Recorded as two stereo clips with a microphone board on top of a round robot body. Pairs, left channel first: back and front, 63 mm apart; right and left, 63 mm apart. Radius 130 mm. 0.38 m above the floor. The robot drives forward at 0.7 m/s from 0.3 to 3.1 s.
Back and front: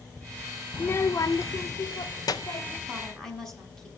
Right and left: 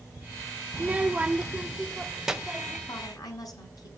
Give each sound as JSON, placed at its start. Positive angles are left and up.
{"t": 0.7, "sound": "a child speaking", "azimuth_deg": 135, "distance_m": 0.5}
{"t": 2.9, "sound": "a woman speaking", "azimuth_deg": -95, "distance_m": 5.5}